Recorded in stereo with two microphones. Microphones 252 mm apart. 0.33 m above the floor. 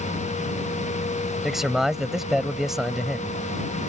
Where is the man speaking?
Centre (ahead or behind).